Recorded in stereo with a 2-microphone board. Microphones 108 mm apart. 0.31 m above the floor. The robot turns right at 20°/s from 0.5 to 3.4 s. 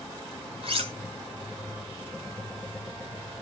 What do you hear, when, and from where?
0.6 s cutlery clinking: 60° right (ahead or behind), 1.3 m